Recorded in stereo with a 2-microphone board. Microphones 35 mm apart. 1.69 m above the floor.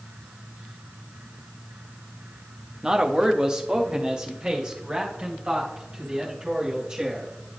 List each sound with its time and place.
2.8 s a man speaking: 20° right (ahead or behind), 0.7 m